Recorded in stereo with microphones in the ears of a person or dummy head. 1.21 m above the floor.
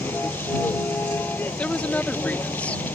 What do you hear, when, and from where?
0.0 s a vehicle: 10° left (ahead or behind)
1.6 s a woman speaking: 10° left (ahead or behind)